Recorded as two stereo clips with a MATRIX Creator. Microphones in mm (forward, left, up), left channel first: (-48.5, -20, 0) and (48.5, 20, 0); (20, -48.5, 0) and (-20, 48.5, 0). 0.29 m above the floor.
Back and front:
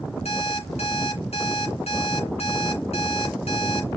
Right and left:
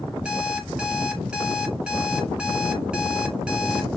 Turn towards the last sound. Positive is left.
turn(degrees=-165)